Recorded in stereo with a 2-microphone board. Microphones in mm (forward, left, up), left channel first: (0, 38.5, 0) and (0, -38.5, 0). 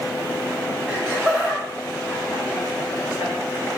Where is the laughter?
5° right (ahead or behind), 1.7 m; by 3.3 s 45° left (ahead or behind), 1.7 m.